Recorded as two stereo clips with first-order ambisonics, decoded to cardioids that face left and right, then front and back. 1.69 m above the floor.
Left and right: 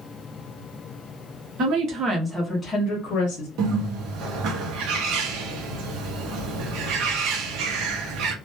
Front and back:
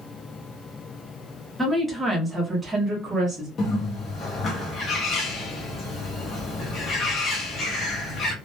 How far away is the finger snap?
I don't hear a finger snap.